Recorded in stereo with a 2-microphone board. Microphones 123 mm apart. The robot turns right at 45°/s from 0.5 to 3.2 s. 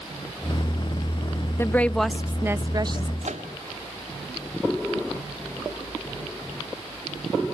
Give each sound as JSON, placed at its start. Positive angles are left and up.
{"t": 1.6, "sound": "a woman speaking", "azimuth_deg": 160, "distance_m": 0.6}
{"t": 3.2, "sound": "a microwave", "side_deg": -70, "distance_m": 1.9}